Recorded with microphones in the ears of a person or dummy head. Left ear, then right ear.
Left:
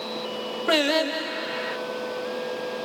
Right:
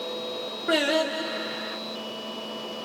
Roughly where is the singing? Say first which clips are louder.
Left 2 dB; left.